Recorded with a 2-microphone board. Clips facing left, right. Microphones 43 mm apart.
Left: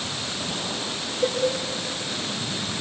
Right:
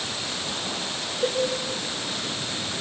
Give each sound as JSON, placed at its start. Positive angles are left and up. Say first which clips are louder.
{"t": 1.2, "sound": "a cowbell", "louder": "left 1 dB", "side_deg": 70, "distance_m": 3.5}